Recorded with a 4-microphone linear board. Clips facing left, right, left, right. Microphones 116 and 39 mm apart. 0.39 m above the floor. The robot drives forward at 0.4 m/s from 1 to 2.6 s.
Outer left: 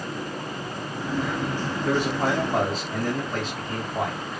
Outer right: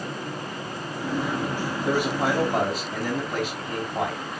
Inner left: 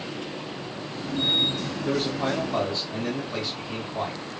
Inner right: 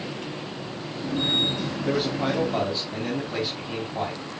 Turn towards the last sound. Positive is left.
turn(degrees=-10)  # may be behind; listen again after turning